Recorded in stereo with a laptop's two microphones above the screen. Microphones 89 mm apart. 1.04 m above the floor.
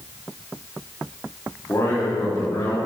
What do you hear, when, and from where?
1.7 s a man speaking: 30° left (ahead or behind), 2.5 m